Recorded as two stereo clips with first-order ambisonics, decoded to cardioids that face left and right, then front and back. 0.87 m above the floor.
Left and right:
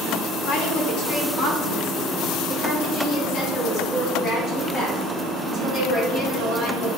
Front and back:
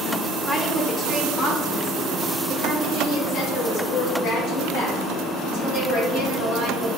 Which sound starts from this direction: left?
A woman speaking, at 0.5 s.